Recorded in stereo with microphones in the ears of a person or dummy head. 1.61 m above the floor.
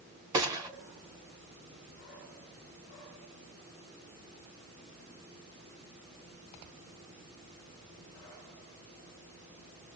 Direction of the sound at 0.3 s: 20° right (ahead or behind).